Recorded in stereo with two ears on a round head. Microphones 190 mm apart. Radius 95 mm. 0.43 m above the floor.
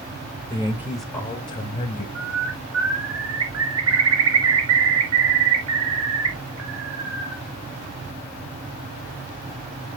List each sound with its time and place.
0.5 s a man speaking: 25° right (ahead or behind), 1.9 m; by 2.0 s 40° left (ahead or behind), 2.5 m
2.1 s a bird: 75° right (ahead or behind), 4 m